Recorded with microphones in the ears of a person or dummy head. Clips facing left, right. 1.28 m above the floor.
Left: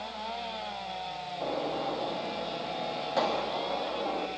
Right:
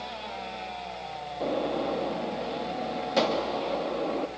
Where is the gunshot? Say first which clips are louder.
Right 4 dB; 40° right (ahead or behind), 1.3 m.